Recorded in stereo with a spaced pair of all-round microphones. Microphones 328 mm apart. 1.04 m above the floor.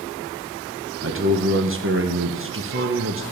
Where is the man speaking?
40° right (ahead or behind), 0.7 m.